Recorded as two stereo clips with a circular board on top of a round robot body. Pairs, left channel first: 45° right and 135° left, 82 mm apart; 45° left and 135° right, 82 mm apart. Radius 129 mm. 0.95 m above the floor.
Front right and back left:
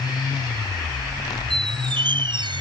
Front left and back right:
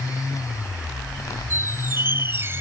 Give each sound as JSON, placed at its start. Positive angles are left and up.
{"t": 1.5, "sound": "a squeak", "azimuth_deg": 160}